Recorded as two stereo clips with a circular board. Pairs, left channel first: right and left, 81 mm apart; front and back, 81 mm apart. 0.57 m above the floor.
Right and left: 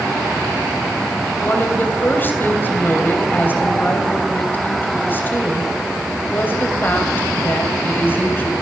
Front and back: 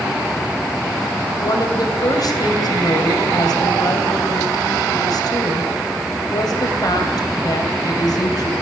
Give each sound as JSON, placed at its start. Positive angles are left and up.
{"t": 1.4, "sound": "a woman speaking", "azimuth_deg": -30, "distance_m": 3.0}